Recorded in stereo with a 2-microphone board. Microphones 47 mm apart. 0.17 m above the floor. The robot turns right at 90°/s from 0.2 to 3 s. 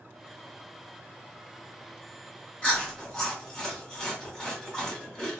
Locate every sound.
2.6 s chewing: 20° left (ahead or behind), 1.7 m; by 5.4 s 5° left (ahead or behind), 1.7 m